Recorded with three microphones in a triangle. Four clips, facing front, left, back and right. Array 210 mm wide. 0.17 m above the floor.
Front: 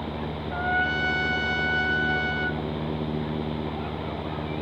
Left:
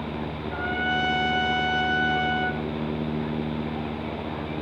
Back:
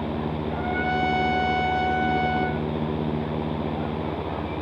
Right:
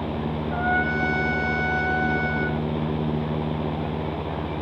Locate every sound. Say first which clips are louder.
0.5 s a trumpet: right 3 dB, front 1 dB; 65° right, 1.5 m